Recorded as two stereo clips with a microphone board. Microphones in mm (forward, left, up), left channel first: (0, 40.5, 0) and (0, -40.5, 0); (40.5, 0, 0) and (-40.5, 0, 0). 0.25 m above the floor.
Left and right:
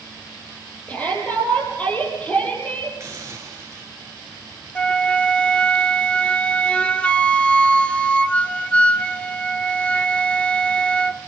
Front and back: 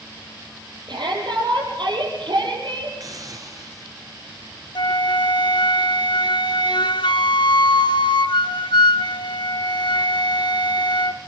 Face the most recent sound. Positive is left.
turn(degrees=15)